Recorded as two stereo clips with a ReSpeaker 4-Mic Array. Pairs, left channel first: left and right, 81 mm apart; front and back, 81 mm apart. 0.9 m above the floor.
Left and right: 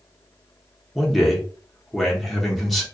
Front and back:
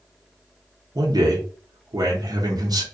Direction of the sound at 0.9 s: Straight behind.